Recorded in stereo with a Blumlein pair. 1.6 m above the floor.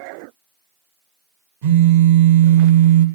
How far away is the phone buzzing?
About 1.0 m.